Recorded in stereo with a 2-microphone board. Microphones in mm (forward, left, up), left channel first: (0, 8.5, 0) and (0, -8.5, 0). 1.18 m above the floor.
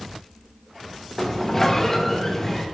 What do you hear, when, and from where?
1.2 s a sliding door: 15° left (ahead or behind), 0.9 m